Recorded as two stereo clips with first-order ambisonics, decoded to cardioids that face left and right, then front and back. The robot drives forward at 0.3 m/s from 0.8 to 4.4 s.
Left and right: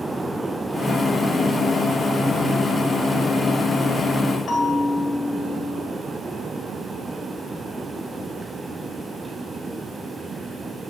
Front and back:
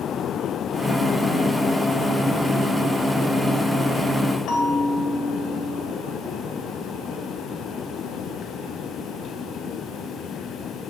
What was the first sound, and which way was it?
A bell, 40° left.